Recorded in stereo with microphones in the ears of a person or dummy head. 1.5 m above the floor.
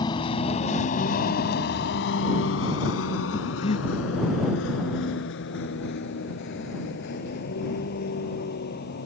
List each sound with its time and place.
0.0 s a vehicle: 25° left (ahead or behind); by 9.1 s 55° left (ahead or behind)
3.3 s breathing: 35° left (ahead or behind)